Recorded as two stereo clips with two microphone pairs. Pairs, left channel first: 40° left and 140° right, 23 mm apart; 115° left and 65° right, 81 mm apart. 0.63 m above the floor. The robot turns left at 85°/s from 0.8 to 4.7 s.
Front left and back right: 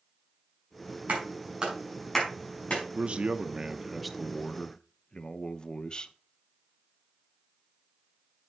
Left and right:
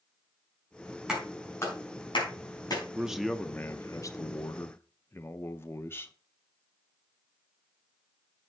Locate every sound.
1.1 s a clap: 150° right, 5 m; by 2.8 s 65° left, 5 m
3.0 s a man speaking: 140° right, 0.7 m; by 6.1 s 70° left, 0.7 m